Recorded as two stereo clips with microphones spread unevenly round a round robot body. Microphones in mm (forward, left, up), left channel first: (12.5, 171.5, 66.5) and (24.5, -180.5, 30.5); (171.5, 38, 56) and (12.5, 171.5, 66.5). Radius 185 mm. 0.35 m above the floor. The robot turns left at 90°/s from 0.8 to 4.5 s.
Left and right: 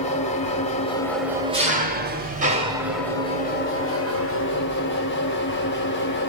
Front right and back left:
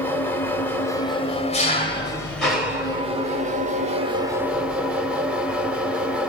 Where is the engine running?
25° left, 1.1 m; by 6.3 s 55° left, 1.1 m.